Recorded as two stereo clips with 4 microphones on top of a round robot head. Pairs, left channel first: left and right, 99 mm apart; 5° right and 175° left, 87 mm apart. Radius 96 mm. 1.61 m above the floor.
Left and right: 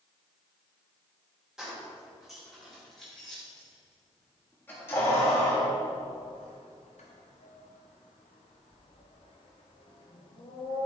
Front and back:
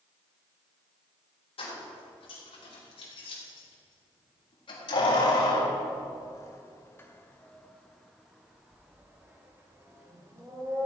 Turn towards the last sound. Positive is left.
turn(degrees=125)